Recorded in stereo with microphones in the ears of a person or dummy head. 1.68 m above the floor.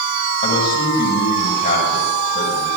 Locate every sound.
0.4 s a man speaking: 55° left (ahead or behind), 7.5 m